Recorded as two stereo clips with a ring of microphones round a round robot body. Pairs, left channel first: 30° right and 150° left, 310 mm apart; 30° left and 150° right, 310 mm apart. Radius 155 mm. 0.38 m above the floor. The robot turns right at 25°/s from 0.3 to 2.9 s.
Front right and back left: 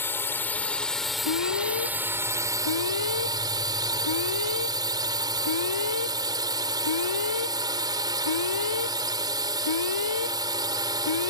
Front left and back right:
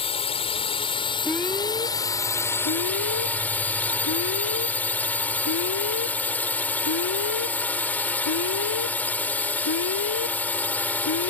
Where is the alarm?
60° right; by 11.3 s 15° right.